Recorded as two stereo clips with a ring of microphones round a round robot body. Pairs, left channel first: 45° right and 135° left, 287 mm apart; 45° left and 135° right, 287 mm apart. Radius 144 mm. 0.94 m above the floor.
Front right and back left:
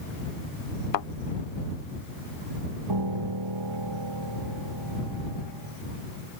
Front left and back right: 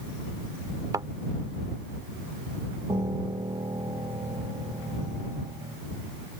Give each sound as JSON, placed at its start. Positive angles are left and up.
{"t": 0.9, "sound": "a thud", "azimuth_deg": -55}
{"t": 2.9, "sound": "a piano", "azimuth_deg": 145}